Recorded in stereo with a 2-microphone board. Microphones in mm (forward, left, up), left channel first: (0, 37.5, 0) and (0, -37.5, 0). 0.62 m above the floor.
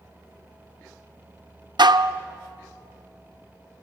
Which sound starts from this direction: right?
Dishes clattering, at 1.8 s.